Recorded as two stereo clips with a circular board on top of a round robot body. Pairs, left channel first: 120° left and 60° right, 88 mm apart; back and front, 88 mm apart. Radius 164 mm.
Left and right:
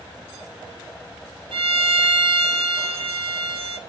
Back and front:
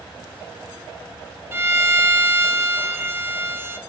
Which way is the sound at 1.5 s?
65° right.